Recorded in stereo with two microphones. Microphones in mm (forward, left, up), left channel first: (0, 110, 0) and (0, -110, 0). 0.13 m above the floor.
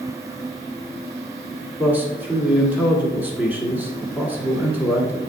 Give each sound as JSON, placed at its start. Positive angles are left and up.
{"t": 1.8, "sound": "a man speaking", "side_deg": -10, "distance_m": 1.7}